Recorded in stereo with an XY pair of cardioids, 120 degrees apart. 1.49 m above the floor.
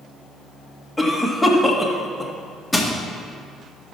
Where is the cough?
Straight ahead, 2 m.